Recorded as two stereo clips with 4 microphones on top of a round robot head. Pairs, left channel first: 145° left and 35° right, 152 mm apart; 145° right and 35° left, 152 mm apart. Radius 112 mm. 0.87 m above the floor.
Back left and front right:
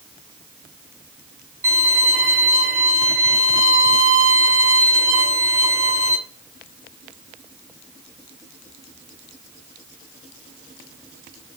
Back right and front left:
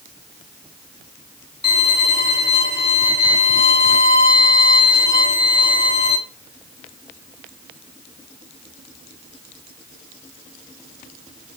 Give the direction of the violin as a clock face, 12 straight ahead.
3 o'clock.